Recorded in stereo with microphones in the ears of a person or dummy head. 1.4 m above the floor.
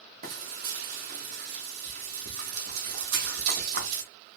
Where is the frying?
45° right (ahead or behind), 0.9 m.